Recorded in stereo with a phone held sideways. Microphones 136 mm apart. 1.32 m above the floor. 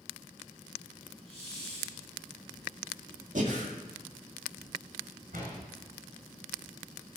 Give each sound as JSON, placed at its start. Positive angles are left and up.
{"t": 1.3, "sound": "a hiss", "side_deg": -50, "distance_m": 7.5}
{"t": 3.4, "sound": "breathing", "side_deg": -65, "distance_m": 1.9}
{"t": 5.3, "sound": "a door slam", "side_deg": -75, "distance_m": 6.5}